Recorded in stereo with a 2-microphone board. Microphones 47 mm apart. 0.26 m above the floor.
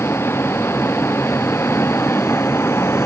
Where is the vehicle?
60° left (ahead or behind); by 3.1 s 65° left (ahead or behind).